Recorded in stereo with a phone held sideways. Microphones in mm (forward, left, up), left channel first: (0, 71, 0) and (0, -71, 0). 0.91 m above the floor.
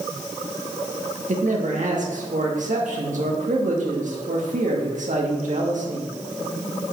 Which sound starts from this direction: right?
A man speaking, at 1.3 s.